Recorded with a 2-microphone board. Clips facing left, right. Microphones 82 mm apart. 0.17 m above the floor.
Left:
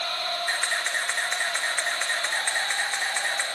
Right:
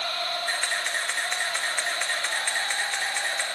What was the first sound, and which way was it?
A camera shutter, 20° left (ahead or behind).